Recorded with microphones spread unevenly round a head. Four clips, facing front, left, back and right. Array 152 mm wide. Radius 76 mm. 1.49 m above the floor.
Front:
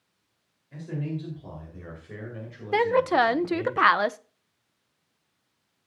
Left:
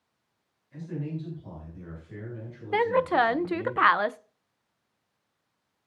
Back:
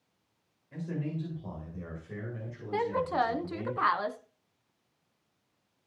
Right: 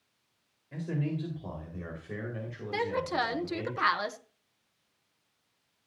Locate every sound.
0.7 s a man speaking: 85° right, 4.5 m; by 3.7 s 65° right, 5.5 m
2.7 s a woman speaking: 25° left, 0.7 m